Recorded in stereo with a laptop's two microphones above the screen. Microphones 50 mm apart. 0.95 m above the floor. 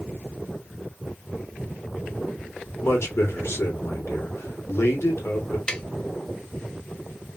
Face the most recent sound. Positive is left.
turn(degrees=20)  # may be behind; listen again after turning